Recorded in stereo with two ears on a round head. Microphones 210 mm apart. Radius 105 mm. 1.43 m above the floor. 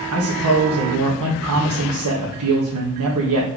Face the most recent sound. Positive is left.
turn(degrees=-85)